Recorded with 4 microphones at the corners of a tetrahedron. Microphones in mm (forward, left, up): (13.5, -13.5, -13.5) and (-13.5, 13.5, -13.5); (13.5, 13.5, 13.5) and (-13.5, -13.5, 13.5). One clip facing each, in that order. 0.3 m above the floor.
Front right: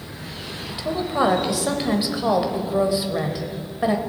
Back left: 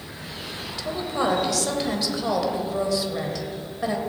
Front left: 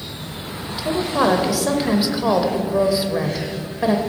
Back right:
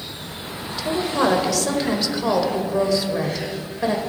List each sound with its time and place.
0.7 s a woman speaking: 15° right, 1.1 m